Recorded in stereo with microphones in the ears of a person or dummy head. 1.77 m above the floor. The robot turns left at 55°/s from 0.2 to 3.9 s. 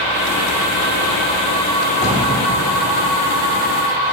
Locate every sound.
1.9 s a drawer: 20° left (ahead or behind), 1.7 m; by 2.2 s 10° left (ahead or behind), 1.7 m